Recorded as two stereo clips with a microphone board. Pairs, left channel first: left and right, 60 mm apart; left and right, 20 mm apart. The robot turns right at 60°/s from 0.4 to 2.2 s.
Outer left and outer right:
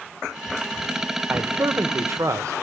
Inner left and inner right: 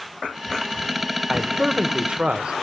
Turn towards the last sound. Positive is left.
turn(degrees=-90)